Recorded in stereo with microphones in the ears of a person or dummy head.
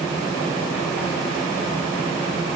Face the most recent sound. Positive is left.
No sound to turn to.